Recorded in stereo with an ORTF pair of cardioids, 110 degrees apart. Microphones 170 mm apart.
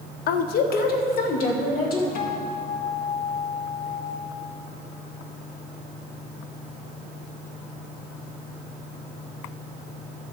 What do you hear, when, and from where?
0.3 s a woman speaking: 65° left, 0.8 m; by 2.0 s 60° left, 3.5 m
2.1 s a guitar: 60° left, 1.9 m